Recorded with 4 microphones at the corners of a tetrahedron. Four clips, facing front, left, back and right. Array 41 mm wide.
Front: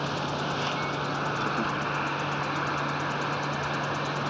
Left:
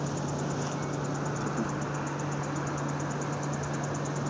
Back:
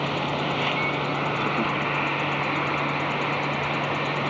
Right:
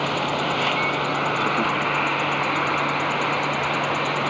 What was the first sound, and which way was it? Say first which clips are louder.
An insect: right 10 dB, back 4 dB; 105° right.